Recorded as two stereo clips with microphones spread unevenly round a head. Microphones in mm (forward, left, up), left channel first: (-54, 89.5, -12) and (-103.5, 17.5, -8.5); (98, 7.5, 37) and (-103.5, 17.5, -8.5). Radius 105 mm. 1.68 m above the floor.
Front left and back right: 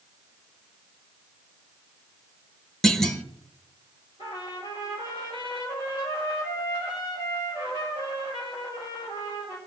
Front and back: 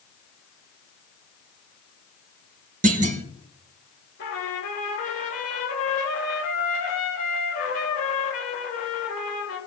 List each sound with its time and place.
2.8 s a clunk: 140° left, 0.9 m
4.2 s a trumpet: 30° left, 4 m